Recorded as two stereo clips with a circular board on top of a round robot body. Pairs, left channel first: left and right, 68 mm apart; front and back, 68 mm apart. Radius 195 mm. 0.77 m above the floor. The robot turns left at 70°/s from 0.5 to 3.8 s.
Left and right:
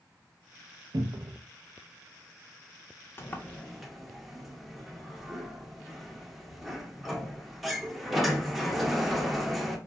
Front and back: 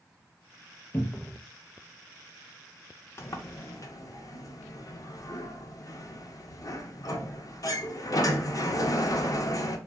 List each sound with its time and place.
0.9 s a cupboard door: 60° right, 0.5 m; by 1.4 s 95° right, 0.5 m
3.2 s a sliding door: 45° left, 0.7 m; by 9.8 s straight ahead, 0.7 m